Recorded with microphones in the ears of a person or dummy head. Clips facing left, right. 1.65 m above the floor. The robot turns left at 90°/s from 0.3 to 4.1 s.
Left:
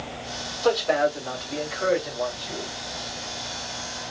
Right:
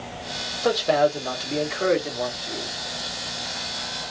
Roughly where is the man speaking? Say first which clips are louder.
Right 2 dB; ahead.